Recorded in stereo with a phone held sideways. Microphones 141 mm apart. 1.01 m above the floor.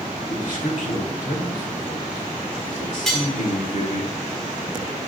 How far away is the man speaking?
About 2 m.